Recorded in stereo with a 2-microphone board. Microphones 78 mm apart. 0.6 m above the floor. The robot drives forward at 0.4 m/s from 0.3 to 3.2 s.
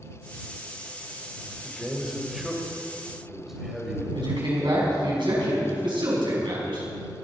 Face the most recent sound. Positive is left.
turn(degrees=-80)